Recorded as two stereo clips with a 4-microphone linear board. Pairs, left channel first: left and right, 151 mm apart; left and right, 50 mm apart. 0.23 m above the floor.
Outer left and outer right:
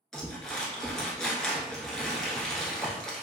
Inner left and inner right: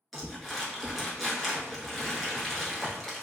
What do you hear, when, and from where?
0.1 s crumpling: 5° left (ahead or behind), 1.0 m